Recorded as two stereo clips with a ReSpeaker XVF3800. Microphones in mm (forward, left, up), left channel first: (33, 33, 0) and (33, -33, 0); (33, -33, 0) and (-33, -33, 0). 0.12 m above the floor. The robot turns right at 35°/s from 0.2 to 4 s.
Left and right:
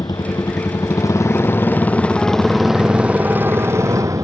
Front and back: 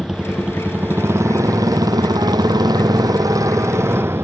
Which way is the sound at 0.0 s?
100° left.